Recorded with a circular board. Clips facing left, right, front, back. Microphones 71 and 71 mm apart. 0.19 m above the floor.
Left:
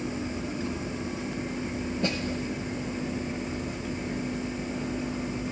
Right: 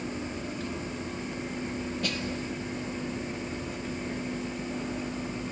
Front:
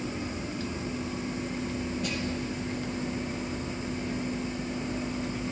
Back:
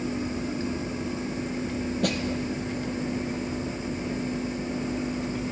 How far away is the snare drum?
About 1.3 m.